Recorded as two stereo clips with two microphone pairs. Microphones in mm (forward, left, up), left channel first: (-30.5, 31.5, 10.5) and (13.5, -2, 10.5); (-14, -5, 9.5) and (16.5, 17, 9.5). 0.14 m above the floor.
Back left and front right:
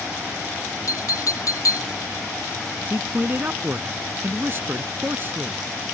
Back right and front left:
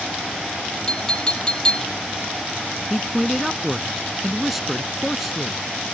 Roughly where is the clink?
Behind left.